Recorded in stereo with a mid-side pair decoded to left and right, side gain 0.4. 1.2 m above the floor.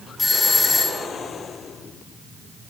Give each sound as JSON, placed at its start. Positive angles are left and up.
{"t": 0.2, "sound": "a doorbell", "azimuth_deg": 30, "distance_m": 4.0}